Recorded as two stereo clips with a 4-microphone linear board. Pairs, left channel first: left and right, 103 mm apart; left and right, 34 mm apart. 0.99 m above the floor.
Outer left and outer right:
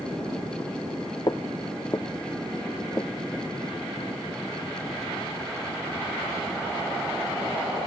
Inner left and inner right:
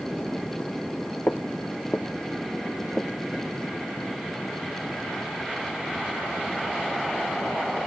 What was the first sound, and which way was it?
Footsteps, 45° left (ahead or behind).